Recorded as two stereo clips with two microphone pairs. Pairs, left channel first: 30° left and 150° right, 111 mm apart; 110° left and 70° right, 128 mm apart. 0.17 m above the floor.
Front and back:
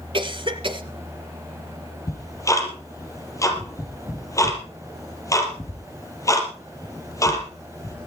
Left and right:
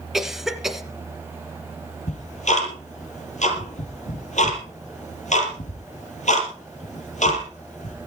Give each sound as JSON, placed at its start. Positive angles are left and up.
{"t": 0.1, "sound": "a cough", "azimuth_deg": -160, "distance_m": 1.5}
{"t": 2.1, "sound": "ticking", "azimuth_deg": 95, "distance_m": 4.0}